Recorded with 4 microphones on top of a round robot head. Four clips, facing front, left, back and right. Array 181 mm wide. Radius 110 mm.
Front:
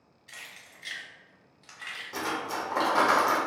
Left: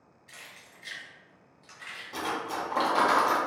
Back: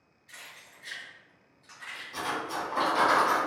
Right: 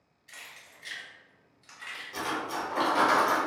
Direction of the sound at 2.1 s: 40° left.